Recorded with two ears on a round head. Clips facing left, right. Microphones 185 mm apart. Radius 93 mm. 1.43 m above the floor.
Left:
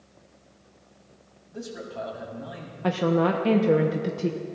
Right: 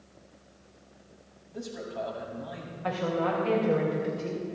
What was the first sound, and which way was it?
A man speaking, 5° left (ahead or behind).